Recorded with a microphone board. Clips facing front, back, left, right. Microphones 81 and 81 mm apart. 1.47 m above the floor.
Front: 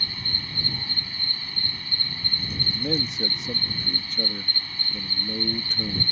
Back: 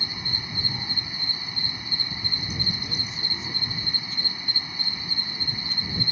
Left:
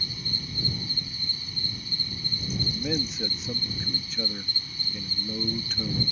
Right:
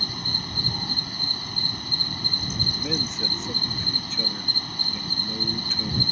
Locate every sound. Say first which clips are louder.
0.0 s an insect: back 1 dB, right 5 dB; 105° right
2.7 s a man speaking: front 7 dB, left 1 dB; 5° left